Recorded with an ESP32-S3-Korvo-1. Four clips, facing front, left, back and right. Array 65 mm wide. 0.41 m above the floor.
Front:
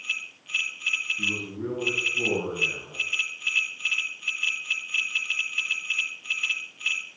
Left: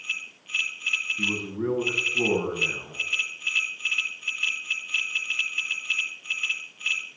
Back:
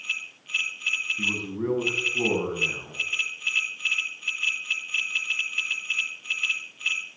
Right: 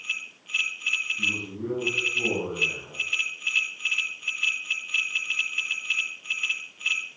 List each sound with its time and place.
1.2 s a man speaking: 140° left, 4 m